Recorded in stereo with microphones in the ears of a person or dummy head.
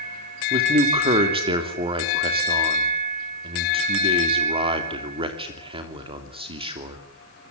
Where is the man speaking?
30° right (ahead or behind), 3 m.